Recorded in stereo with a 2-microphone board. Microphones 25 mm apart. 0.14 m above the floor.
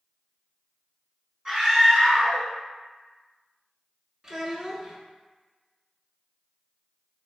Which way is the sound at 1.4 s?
35° right (ahead or behind).